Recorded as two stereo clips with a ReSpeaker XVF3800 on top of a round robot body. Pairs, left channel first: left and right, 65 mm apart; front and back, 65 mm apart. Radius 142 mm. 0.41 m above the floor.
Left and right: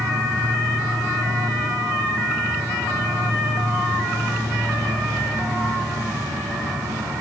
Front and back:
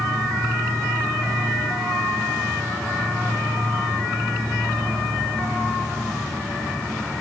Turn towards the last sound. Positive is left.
turn(degrees=-85)